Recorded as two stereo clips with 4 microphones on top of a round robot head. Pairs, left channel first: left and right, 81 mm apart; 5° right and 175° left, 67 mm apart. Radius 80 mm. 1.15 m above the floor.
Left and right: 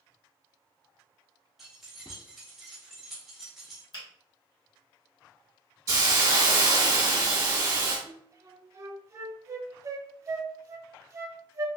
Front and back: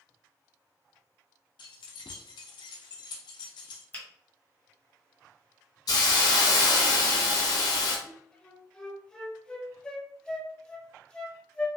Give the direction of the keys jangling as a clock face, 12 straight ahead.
12 o'clock.